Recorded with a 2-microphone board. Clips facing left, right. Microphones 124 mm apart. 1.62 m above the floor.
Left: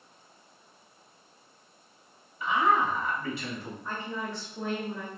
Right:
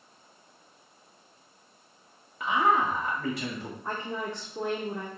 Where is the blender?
I don't hear a blender.